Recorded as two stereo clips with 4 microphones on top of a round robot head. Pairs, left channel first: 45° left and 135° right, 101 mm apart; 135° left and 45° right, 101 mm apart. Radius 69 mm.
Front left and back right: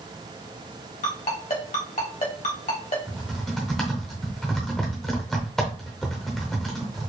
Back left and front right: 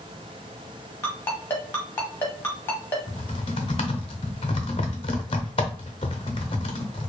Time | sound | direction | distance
1.0 | a ringtone | 70° left | 1.5 m
3.1 | typing on a keyboard | 130° left | 0.7 m